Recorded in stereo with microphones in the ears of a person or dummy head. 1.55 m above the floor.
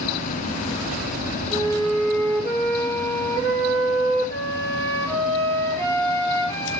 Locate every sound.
1.5 s a flute: 15° left (ahead or behind), 5.5 m